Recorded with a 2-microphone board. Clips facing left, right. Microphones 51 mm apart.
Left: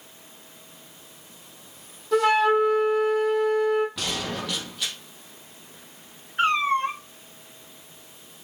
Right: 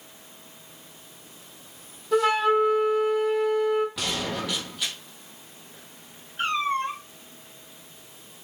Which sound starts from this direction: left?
A cat meowing, at 6.4 s.